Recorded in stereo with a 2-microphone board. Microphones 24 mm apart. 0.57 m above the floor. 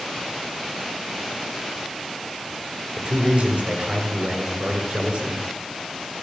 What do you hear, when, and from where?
3.0 s a man speaking: 55° right (ahead or behind), 8 m